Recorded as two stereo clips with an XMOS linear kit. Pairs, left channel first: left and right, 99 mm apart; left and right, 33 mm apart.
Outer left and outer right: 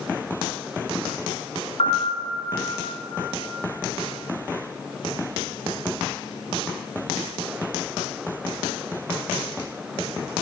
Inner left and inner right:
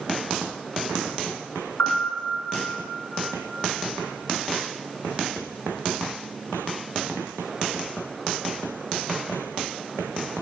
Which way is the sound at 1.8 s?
80° left.